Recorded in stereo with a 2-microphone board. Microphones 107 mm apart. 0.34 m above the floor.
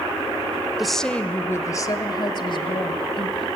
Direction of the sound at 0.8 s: Centre (ahead or behind).